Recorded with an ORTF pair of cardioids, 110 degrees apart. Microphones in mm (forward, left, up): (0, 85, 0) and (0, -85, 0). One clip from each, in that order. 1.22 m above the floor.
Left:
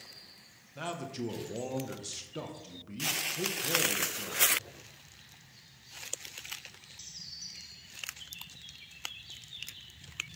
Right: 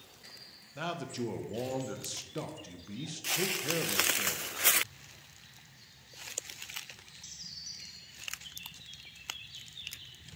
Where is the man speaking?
10° right, 0.7 m.